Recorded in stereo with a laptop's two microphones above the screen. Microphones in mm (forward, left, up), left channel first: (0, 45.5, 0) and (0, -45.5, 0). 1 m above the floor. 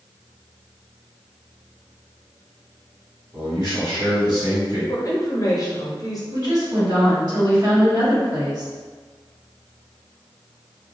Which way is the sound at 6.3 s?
50° right (ahead or behind).